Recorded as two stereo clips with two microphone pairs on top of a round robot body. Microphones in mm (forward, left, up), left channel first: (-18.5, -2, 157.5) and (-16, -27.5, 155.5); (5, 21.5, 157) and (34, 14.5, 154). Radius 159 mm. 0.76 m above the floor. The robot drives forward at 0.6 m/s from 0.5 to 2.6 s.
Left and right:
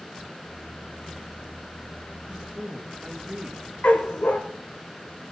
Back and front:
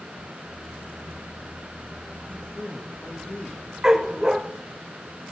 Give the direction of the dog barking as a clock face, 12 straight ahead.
10 o'clock.